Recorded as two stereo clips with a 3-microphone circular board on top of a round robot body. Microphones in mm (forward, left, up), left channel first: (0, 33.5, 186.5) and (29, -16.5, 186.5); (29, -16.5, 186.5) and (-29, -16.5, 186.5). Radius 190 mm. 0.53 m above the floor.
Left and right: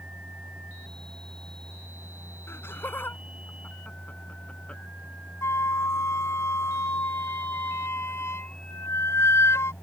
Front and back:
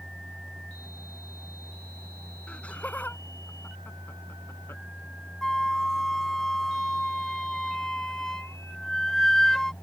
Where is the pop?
No pop in this recording.